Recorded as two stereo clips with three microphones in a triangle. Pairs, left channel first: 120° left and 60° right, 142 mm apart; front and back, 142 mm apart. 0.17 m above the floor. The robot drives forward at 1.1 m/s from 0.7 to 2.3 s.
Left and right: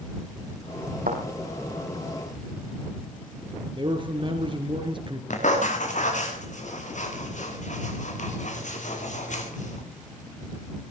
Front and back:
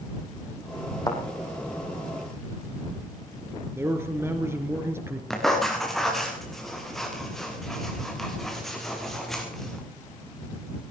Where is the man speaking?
110° right, 2.5 m.